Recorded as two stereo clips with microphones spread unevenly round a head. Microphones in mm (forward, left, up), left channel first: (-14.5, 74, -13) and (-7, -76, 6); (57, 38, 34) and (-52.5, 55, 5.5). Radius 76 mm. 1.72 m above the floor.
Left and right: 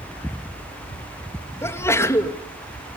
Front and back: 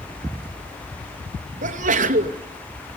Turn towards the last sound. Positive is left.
turn(degrees=165)